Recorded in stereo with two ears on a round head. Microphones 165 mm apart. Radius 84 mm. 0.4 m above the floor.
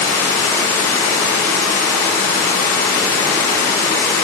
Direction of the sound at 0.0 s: 15° left (ahead or behind).